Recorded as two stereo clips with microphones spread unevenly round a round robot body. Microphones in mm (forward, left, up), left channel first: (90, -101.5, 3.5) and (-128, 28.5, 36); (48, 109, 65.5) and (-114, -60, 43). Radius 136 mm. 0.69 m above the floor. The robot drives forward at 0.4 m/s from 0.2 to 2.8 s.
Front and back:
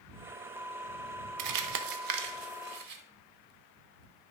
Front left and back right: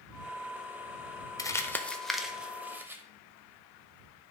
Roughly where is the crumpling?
Behind left.